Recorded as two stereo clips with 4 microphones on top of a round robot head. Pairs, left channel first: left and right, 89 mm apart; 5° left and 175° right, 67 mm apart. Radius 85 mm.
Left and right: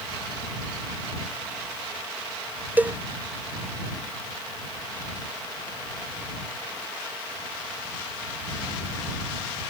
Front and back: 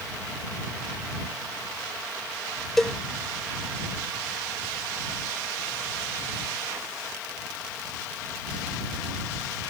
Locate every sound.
2.8 s a cowbell: 70° right